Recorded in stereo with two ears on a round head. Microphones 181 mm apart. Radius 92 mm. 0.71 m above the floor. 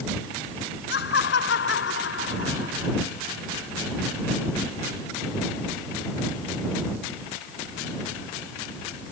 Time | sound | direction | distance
0.9 | laughter | 50° left (ahead or behind) | ?